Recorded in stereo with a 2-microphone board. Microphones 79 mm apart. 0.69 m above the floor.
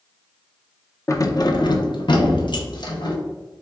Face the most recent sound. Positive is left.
turn(degrees=65)  # may be behind; listen again after turning